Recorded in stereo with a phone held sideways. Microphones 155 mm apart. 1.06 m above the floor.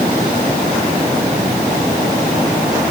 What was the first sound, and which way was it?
Only background noise.